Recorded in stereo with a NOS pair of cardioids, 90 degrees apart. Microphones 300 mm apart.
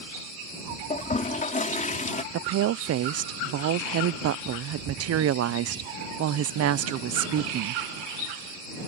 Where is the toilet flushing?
25° left.